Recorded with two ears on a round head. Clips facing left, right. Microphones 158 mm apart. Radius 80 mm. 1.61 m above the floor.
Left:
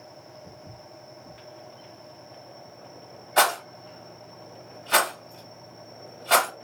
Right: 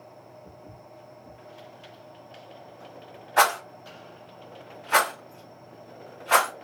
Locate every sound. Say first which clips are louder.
0.4 s footsteps: left 1 dB; 30° left (ahead or behind), 1.8 m
3.4 s a rattle: even; 45° left (ahead or behind), 1.5 m